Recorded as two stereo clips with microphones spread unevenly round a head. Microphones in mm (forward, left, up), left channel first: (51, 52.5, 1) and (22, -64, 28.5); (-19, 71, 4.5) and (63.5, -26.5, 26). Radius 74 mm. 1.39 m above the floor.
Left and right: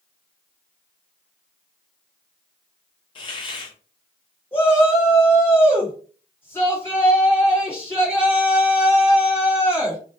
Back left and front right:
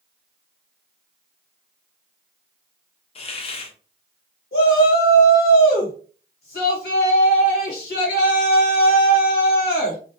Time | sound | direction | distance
3.1 | a hiss | 110° left | 0.5 m
4.5 | a shout | 155° left | 1.2 m